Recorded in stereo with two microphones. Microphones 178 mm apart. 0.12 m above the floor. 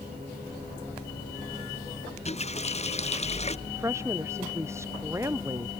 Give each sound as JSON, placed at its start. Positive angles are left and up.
{"t": 2.2, "sound": "a running tap", "side_deg": 35}
{"t": 3.7, "sound": "a woman speaking", "side_deg": -15}